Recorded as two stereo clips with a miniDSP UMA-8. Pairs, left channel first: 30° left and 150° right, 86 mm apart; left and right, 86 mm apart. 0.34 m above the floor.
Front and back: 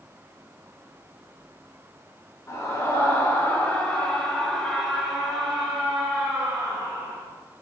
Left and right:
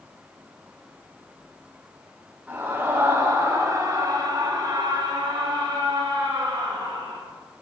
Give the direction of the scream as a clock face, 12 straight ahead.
1 o'clock.